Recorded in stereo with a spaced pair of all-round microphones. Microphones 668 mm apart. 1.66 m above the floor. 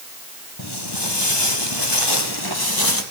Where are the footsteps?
35° left (ahead or behind), 2 m; by 3.0 s 30° left (ahead or behind), 2.5 m.